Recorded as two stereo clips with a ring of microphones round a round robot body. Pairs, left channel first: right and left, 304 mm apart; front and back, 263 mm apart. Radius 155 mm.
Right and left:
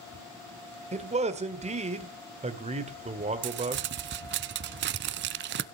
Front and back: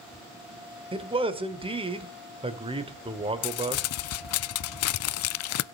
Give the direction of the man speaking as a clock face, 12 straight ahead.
8 o'clock.